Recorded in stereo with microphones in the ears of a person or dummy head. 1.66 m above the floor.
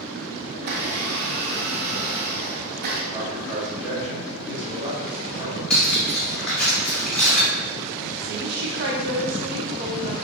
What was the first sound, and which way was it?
A blender, 50° right (ahead or behind).